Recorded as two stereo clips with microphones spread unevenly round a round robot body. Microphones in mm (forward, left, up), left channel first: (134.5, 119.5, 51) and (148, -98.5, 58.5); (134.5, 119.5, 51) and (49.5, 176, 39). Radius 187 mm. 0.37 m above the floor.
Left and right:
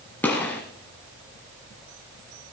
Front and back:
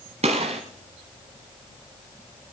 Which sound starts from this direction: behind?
A gunshot, at 0.2 s.